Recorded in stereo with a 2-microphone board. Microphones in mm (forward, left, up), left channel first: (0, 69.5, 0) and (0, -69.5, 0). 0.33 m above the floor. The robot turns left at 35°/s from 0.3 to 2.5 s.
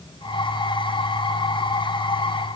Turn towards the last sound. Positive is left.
No sound to turn to.